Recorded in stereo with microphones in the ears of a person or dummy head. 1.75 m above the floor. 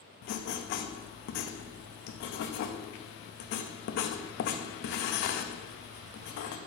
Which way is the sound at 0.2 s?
55° left (ahead or behind).